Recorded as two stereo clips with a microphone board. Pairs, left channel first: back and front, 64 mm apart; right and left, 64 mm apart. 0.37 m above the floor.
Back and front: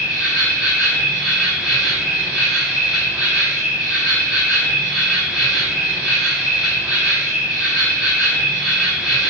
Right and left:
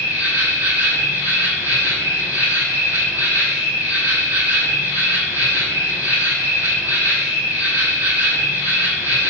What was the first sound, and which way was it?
An insect, 80° left.